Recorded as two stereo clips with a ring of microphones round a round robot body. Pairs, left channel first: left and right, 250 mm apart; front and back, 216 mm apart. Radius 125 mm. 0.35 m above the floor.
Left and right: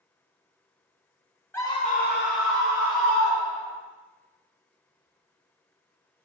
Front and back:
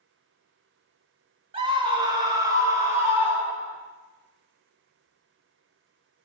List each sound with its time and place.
1.5 s a scream: 160° left, 0.9 m; by 3.8 s 100° left, 2.5 m